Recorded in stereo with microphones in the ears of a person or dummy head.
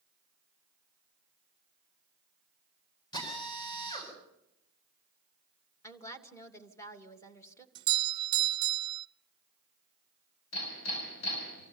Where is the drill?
25° left (ahead or behind), 8.5 m.